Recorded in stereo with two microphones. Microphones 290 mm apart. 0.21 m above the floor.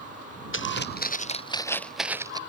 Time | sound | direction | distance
0.5 | footsteps | 45° left (ahead or behind) | ?